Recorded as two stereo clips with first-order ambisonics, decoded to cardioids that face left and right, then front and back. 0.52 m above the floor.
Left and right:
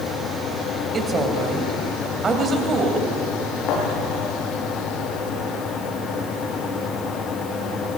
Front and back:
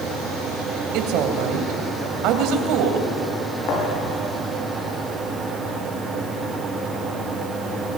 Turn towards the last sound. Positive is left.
turn(degrees=40)